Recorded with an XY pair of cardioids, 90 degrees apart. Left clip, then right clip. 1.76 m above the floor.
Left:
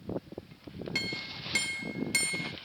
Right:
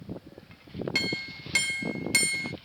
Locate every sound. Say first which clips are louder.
0.9 s a clink: right 4 dB; 35° right